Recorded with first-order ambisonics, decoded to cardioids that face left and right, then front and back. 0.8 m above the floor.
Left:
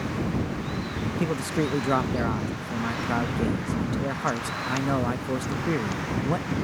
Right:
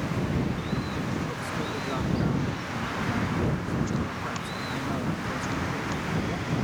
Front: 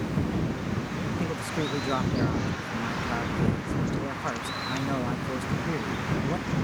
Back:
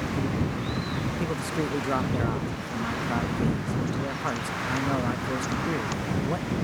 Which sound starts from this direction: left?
A man speaking, at 1.2 s.